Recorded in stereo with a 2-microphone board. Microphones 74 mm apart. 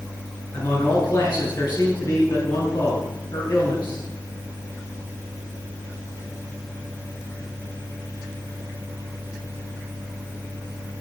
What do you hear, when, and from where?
0.5 s a man speaking: 65° left (ahead or behind), 6 m